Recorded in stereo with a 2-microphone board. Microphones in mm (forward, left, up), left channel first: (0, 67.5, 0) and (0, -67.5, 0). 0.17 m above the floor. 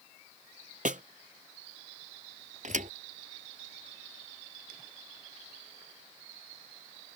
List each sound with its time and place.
0.8 s a snare drum: 80° right
2.6 s a thud: 70° right (ahead or behind)